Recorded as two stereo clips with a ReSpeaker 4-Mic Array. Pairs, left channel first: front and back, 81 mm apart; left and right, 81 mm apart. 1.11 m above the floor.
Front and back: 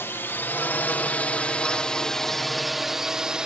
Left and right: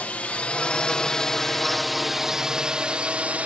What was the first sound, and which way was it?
A drone, 30° left.